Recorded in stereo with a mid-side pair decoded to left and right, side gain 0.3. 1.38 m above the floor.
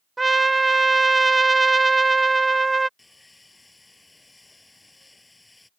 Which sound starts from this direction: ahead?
Sawing, at 3.0 s.